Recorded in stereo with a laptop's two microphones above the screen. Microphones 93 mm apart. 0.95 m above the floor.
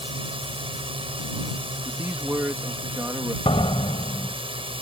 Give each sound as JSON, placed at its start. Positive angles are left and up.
{"t": 0.0, "sound": "a drone", "side_deg": -80}
{"t": 1.8, "sound": "a man speaking", "side_deg": -25}
{"t": 3.5, "sound": "a door slam", "side_deg": 85}